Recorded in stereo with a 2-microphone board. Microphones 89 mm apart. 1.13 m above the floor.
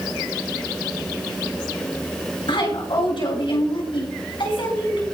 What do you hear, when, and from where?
2.5 s a woman speaking: 85° left, 6 m